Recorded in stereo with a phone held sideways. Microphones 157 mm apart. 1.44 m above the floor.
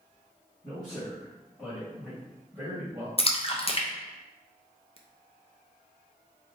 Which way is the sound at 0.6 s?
30° left (ahead or behind).